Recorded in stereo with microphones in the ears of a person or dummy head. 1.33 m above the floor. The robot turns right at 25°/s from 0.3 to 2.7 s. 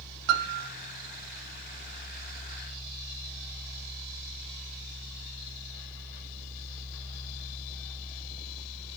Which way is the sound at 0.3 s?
75° right (ahead or behind).